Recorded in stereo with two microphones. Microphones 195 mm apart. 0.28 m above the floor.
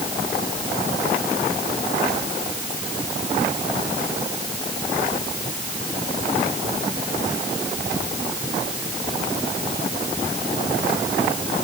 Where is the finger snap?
No finger snap in this recording.